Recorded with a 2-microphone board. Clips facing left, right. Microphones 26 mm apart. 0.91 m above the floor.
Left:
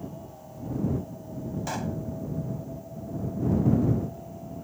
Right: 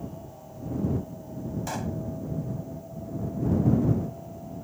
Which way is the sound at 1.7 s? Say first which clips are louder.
Left 1 dB; 5° left (ahead or behind).